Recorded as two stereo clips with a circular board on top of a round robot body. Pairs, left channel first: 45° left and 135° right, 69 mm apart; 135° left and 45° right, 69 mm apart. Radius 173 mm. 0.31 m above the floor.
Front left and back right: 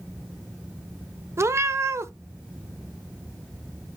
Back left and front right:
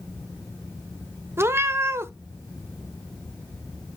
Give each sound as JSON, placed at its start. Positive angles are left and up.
{"t": 1.4, "sound": "a cat meowing", "azimuth_deg": -90, "distance_m": 0.7}